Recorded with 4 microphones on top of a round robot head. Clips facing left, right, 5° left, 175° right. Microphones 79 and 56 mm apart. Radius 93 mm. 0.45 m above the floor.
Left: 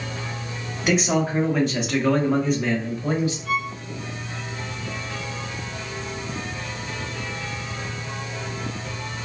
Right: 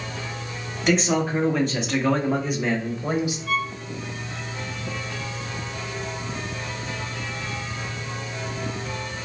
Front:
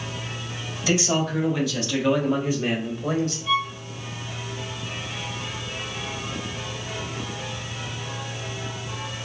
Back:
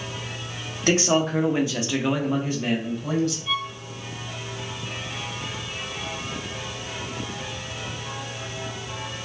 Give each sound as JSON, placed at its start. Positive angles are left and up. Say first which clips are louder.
{"t": 0.9, "sound": "a man speaking", "louder": "even, back 2 dB", "azimuth_deg": 175, "distance_m": 1.3}
{"t": 3.5, "sound": "a violin", "louder": "even, front 4 dB", "azimuth_deg": 95, "distance_m": 1.5}